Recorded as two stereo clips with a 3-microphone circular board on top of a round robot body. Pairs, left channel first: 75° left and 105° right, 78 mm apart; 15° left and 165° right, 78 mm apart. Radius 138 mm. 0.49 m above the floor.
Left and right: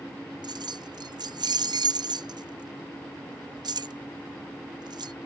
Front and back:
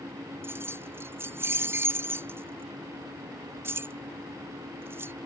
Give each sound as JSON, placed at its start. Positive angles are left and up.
{"t": 0.4, "sound": "keys jangling", "azimuth_deg": -110}